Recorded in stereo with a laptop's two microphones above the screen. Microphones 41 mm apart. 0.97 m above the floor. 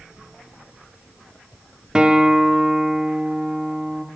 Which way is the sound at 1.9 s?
20° right (ahead or behind).